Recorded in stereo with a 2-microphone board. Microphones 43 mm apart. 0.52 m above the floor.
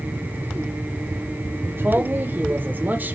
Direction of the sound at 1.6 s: 60° right (ahead or behind).